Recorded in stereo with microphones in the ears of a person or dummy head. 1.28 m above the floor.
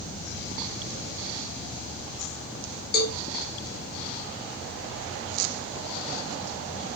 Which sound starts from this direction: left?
A cowbell, at 2.9 s.